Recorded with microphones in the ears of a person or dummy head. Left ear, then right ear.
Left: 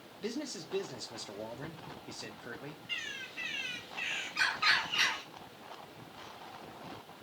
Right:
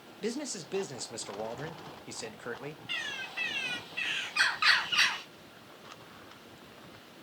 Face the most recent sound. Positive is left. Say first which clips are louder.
# right 3 dB
turn(degrees=-45)  # may be behind; listen again after turning